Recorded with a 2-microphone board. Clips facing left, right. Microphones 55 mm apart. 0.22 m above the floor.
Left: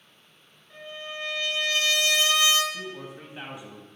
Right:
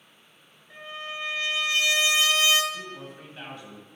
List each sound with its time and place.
0.7 s a trumpet: 25° right (ahead or behind), 1.5 m
2.7 s a man speaking: 15° left (ahead or behind), 1.0 m